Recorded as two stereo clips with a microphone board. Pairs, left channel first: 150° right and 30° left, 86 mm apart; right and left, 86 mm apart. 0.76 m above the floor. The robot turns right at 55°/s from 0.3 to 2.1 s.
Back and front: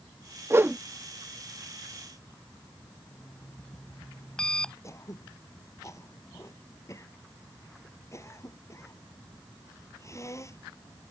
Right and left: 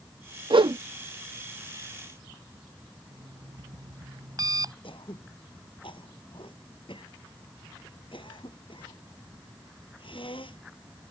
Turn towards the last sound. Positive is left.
turn(degrees=-95)